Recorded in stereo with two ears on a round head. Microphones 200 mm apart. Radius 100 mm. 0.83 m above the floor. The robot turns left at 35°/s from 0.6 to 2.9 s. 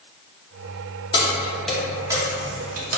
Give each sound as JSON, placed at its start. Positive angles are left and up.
{"t": 1.1, "sound": "keys jangling", "side_deg": 20, "distance_m": 0.8}